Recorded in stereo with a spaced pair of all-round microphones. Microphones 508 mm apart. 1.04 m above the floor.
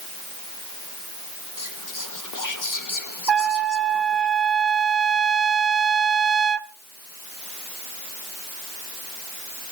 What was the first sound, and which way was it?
Whispering, 35° left (ahead or behind).